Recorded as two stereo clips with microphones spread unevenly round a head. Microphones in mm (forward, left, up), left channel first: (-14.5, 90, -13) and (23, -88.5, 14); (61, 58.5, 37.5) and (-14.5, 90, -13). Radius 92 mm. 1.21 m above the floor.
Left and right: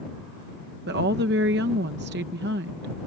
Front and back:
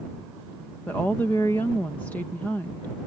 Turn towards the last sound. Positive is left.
turn(degrees=-115)